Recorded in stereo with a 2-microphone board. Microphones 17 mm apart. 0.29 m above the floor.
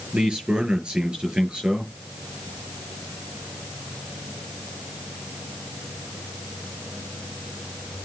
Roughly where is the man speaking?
Right.